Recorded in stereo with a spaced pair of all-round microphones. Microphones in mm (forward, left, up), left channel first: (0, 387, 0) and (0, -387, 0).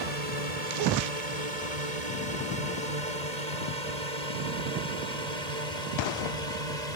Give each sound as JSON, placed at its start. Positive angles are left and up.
{"t": 0.0, "sound": "a drone", "side_deg": -55}